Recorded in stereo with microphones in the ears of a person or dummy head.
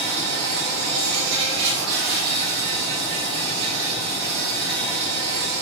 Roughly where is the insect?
Right.